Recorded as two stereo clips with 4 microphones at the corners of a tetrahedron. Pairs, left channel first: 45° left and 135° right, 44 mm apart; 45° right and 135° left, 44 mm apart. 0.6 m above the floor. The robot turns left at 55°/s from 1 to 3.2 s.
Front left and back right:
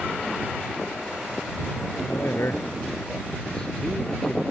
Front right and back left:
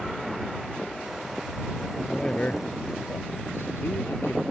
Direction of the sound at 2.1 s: 35° left.